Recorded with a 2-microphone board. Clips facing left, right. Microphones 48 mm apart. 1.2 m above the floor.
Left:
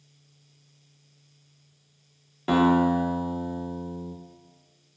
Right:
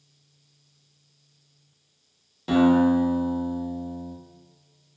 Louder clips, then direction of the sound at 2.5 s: Right 2 dB; 30° left (ahead or behind).